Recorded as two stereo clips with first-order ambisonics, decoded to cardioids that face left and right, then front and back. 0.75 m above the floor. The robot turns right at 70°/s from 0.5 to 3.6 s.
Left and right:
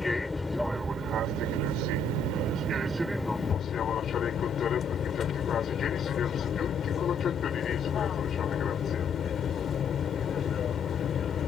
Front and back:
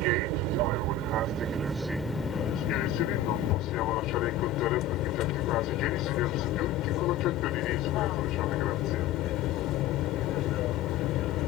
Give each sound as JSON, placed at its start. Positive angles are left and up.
{"t": 0.0, "sound": "an aircraft", "azimuth_deg": 170}